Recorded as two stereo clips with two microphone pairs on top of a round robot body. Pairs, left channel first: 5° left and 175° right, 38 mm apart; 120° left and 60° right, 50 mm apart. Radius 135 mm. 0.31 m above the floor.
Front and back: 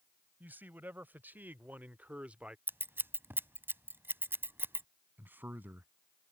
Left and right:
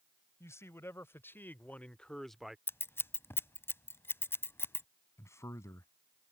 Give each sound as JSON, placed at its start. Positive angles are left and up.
{"t": 0.4, "sound": "a man speaking", "azimuth_deg": 150}
{"t": 2.7, "sound": "scissors", "azimuth_deg": 165}
{"t": 5.2, "sound": "a man speaking", "azimuth_deg": 150}